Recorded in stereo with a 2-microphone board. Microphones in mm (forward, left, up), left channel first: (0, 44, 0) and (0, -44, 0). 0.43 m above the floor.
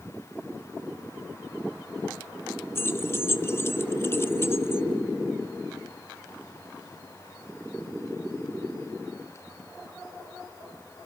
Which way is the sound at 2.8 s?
30° left (ahead or behind).